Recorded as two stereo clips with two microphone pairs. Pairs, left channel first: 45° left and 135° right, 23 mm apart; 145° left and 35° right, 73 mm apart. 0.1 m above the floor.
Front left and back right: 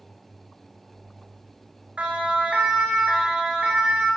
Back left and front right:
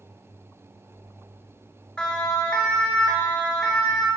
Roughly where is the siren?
Behind right.